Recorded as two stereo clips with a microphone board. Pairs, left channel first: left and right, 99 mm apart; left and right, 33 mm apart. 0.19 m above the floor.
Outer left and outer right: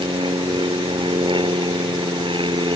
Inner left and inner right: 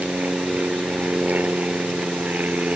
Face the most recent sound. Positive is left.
turn(degrees=-55)  # may be behind; listen again after turning